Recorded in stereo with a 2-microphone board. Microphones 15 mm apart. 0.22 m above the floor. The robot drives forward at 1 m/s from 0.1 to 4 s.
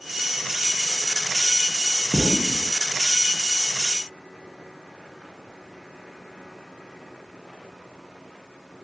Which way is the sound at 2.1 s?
75° right (ahead or behind).